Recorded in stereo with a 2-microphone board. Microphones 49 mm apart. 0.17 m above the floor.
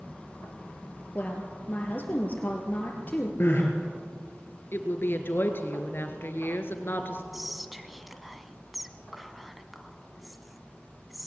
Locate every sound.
1.1 s a woman speaking: 35° left (ahead or behind), 4 m
3.4 s crying: 50° left (ahead or behind), 3.5 m
4.7 s a woman speaking: 50° left (ahead or behind), 2 m
7.3 s whispering: centre (ahead or behind), 1.0 m